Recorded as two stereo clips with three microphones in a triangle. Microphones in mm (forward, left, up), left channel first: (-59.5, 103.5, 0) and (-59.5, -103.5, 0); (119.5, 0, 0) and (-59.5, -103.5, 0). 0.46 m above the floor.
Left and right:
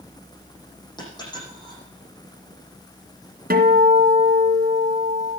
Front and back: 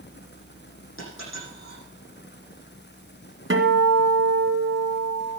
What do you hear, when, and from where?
1.0 s a dropped coin: 20° left, 9.5 m
3.5 s a guitar: 130° right, 2 m